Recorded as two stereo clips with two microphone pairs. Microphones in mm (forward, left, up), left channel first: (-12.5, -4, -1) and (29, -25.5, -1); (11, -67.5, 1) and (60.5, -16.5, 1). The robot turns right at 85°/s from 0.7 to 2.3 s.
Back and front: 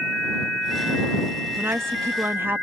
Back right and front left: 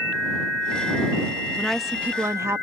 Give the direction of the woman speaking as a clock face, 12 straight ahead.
2 o'clock.